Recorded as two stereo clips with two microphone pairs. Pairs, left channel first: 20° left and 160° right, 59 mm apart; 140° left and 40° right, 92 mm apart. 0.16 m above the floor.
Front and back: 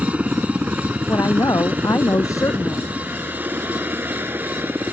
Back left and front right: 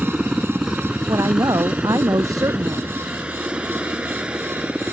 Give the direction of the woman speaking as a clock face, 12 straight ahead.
12 o'clock.